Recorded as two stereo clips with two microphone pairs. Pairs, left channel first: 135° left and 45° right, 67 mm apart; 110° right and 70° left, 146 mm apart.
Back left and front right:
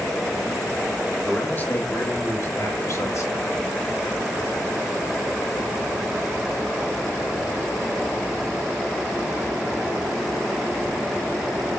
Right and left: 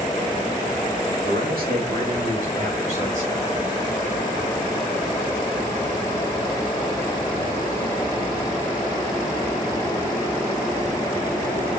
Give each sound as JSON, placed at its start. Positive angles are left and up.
{"t": 1.2, "sound": "a man speaking", "azimuth_deg": 65, "distance_m": 2.5}